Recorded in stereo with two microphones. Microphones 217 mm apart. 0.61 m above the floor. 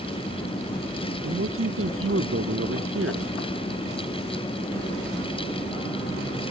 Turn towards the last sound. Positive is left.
turn(degrees=-80)